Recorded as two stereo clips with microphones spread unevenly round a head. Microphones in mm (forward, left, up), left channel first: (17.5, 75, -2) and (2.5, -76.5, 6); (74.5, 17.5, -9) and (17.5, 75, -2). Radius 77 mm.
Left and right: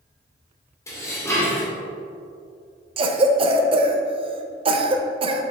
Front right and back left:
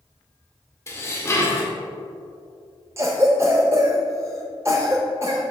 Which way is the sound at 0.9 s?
10° left.